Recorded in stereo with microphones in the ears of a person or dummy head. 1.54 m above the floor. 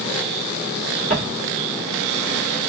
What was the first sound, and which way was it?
Footsteps, centre (ahead or behind).